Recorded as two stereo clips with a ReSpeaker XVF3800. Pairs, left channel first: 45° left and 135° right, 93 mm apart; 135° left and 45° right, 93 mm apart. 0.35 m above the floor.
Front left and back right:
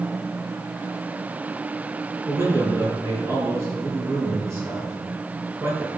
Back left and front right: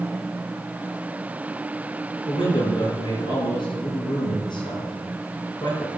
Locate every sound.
2.3 s a man speaking: 165° left, 5.5 m